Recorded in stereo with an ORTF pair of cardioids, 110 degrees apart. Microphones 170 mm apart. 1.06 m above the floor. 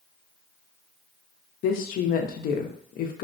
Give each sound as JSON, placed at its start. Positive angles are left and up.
{"t": 1.6, "sound": "a woman speaking", "azimuth_deg": 60, "distance_m": 0.6}